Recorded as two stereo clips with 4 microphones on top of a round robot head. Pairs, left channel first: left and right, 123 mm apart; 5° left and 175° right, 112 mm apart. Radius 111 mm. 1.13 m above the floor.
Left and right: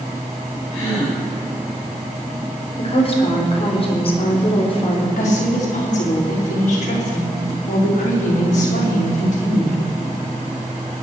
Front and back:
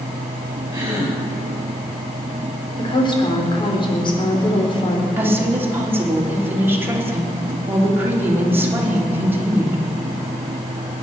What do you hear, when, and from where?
0.7 s a gasp: 120° left, 6.5 m
2.8 s a woman speaking: 50° left, 4 m
5.2 s a woman speaking: 115° left, 4 m